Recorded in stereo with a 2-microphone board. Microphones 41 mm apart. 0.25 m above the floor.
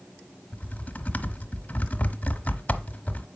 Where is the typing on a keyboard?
35° left (ahead or behind), 1.0 m.